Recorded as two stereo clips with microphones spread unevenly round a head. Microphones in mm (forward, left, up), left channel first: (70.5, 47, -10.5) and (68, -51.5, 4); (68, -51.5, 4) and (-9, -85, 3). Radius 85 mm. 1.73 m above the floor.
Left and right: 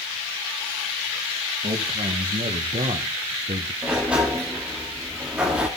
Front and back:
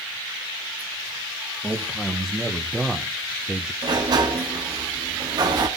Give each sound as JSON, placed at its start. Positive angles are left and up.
{"t": 1.6, "sound": "a man speaking", "azimuth_deg": -70, "distance_m": 2.0}
{"t": 3.8, "sound": "a sliding door", "azimuth_deg": -165, "distance_m": 1.6}